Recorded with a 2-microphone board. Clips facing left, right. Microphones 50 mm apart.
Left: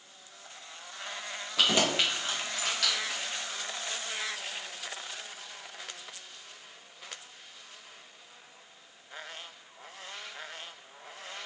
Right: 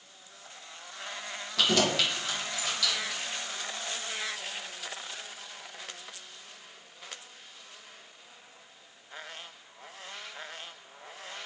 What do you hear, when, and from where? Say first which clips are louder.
1.6 s keys jangling: even; 15° left (ahead or behind), 1.0 m; by 3.2 s 50° left (ahead or behind), 1.1 m